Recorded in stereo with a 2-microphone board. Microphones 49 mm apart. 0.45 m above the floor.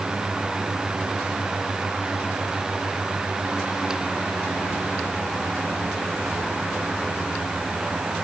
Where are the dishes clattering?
No dishes clattering in this recording.